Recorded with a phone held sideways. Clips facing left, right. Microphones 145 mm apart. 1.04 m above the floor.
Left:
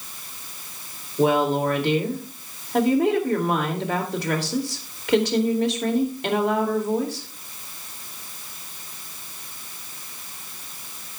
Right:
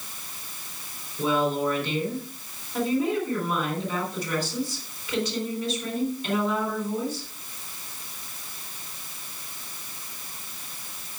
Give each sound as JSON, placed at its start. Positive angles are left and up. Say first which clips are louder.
{"t": 1.2, "sound": "a woman speaking", "louder": "left 5 dB", "side_deg": 80, "distance_m": 2.5}